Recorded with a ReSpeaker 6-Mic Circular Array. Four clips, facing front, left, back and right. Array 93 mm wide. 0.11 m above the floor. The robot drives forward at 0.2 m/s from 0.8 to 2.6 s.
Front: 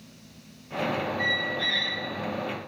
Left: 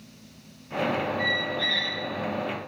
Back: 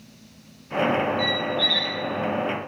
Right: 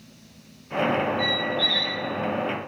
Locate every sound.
1.2 s a squeak: 25° left, 0.5 m; by 2.0 s 45° left, 0.5 m